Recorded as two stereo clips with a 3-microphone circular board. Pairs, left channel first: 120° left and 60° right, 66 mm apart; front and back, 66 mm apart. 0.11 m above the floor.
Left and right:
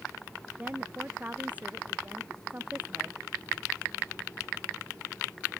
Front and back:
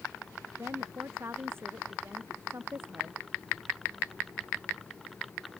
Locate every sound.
0.6 s a woman speaking: 125° right